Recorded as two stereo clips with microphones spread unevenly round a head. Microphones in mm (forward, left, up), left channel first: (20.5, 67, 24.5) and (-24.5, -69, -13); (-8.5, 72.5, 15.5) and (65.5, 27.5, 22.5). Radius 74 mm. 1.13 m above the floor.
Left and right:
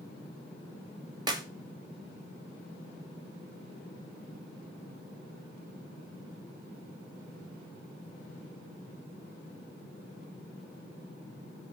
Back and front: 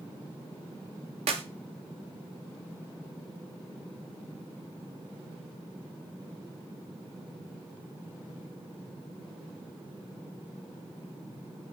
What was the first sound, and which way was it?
A clap, 50° right.